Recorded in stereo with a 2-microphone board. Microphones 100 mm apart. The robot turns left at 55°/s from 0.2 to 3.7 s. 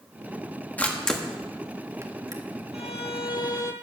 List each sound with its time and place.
0.8 s a camera shutter: 15° left (ahead or behind), 1.3 m; by 2.4 s 35° right (ahead or behind), 1.3 m
2.7 s a violin: 85° left, 1.0 m; by 3.7 s 35° left, 1.0 m